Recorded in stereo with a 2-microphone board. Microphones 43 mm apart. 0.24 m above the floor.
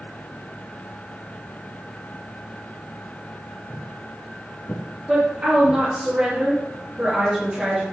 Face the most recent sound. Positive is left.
turn(degrees=-25)  # may be behind; listen again after turning